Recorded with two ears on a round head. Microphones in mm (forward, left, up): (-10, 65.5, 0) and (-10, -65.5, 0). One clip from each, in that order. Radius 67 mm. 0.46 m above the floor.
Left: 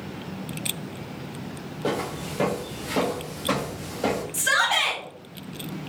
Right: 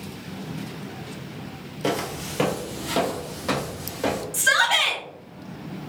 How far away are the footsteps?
About 0.6 m.